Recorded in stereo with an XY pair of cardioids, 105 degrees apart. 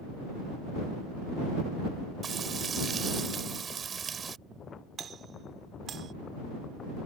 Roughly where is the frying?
Ahead right.